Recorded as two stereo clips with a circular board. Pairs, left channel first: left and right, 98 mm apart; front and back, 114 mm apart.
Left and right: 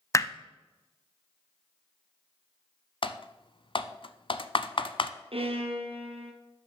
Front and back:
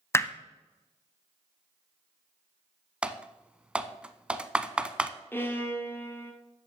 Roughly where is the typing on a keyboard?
Left.